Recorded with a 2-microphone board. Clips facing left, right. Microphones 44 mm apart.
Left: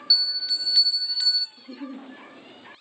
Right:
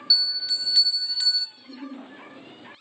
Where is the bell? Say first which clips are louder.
Even; 5° left (ahead or behind), 0.9 m.